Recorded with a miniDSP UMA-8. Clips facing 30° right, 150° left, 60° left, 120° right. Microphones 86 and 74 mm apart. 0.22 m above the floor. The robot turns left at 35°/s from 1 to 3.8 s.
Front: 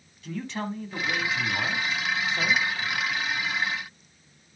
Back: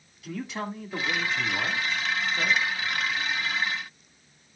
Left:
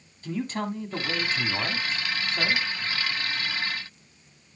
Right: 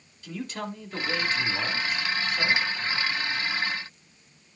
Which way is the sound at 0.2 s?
65° left.